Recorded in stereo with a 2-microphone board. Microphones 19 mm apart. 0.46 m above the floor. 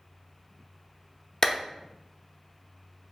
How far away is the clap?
About 0.6 m.